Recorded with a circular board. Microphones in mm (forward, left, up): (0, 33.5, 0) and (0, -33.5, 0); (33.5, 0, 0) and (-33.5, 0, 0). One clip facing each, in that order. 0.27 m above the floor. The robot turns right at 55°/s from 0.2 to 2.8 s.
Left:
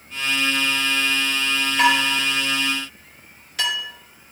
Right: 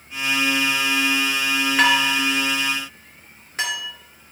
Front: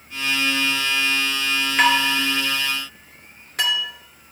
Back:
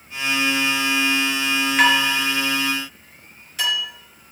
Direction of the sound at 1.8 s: 95° right.